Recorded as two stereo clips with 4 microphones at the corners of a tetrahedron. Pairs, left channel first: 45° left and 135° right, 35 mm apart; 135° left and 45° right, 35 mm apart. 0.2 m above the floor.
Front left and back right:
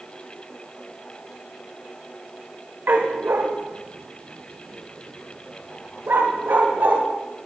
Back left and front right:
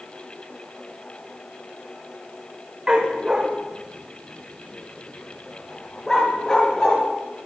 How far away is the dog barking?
About 5 m.